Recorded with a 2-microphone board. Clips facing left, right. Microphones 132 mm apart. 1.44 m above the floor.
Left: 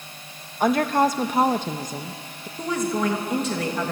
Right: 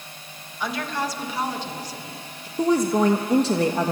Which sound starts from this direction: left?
A woman speaking, at 0.6 s.